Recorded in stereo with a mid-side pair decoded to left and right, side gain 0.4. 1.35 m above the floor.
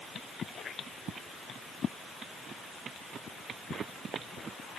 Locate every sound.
Only background noise.